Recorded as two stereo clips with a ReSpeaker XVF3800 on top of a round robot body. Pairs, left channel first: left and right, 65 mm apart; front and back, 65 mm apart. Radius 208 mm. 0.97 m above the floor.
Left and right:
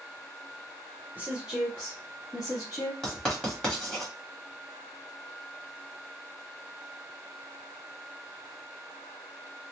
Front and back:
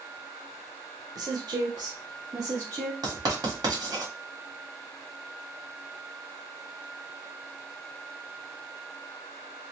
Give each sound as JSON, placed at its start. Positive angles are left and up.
{"t": 1.1, "sound": "a woman speaking", "azimuth_deg": -155, "distance_m": 0.7}
{"t": 3.0, "sound": "writing", "azimuth_deg": 170, "distance_m": 1.1}